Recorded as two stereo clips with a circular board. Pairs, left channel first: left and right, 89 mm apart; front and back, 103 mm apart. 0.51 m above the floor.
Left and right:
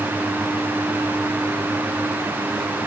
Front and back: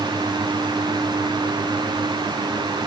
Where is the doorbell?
I don't hear a doorbell.